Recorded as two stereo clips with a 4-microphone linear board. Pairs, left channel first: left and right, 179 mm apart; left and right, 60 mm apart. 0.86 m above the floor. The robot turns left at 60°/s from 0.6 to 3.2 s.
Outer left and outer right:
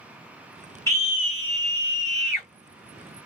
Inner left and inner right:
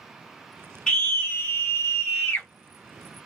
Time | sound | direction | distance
0.9 | a scream | 155° left | 1.2 m